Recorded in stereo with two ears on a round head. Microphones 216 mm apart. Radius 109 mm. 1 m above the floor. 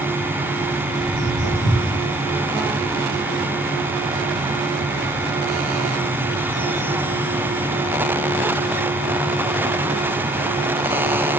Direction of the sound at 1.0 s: 55° left (ahead or behind).